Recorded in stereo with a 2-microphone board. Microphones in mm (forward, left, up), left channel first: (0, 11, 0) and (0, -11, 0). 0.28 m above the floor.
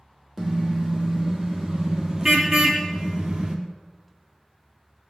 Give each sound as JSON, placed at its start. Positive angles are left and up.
{"t": 0.4, "sound": "a car horn", "side_deg": -10, "distance_m": 4.0}